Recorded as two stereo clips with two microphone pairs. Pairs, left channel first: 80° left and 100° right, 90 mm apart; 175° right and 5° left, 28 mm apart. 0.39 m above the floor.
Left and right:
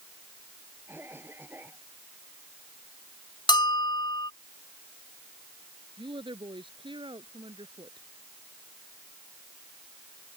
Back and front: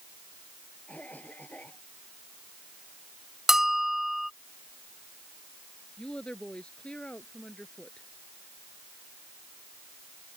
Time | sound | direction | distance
0.9 | a cough | 165° right | ?
3.5 | a bell | 85° left | ?
6.0 | a woman speaking | 115° right | ?